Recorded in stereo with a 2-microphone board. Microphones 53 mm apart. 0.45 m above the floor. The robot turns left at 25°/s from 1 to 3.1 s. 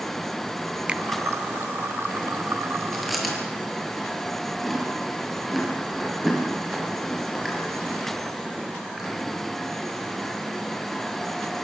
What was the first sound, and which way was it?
A finger snap, 20° right (ahead or behind).